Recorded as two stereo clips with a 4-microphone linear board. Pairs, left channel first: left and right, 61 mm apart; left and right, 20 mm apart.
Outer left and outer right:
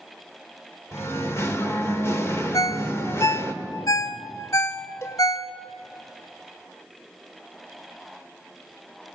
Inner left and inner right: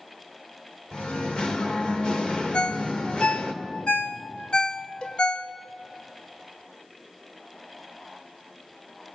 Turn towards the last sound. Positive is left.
turn(degrees=50)  # may be behind; listen again after turning